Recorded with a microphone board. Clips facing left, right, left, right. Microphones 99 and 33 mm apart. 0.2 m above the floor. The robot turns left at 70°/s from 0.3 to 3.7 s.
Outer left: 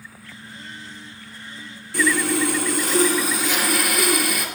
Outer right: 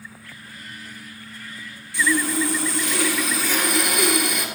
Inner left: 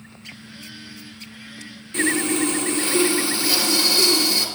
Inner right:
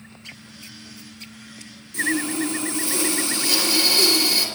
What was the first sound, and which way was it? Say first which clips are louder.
Sawing: outer left 1 dB, inner left 2 dB; 125° left.